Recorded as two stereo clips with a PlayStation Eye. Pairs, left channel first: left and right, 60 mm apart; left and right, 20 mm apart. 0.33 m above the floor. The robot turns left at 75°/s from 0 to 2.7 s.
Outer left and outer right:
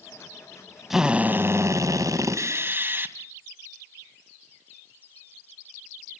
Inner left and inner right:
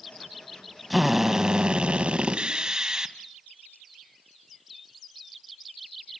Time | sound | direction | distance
0.9 | a drill | 5° right | 1.8 m